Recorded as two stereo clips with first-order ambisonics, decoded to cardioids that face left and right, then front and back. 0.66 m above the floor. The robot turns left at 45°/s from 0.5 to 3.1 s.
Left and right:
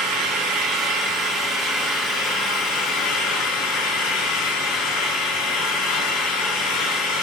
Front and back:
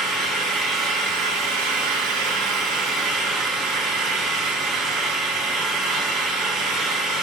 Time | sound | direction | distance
0.0 | an engine running | 120° right | 4.5 m